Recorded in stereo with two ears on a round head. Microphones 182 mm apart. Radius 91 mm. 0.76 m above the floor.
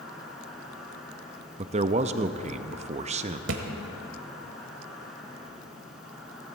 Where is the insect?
Centre (ahead or behind), 6 m.